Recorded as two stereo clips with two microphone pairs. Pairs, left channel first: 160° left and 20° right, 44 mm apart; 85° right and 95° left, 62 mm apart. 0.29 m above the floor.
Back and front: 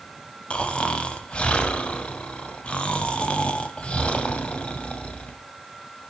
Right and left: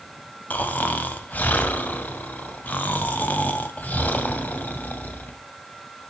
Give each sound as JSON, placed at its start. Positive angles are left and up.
{"t": 0.5, "sound": "snoring", "azimuth_deg": -140, "distance_m": 0.7}